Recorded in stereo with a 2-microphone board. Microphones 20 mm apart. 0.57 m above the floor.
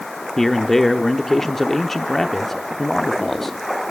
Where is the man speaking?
15° left (ahead or behind), 0.9 m.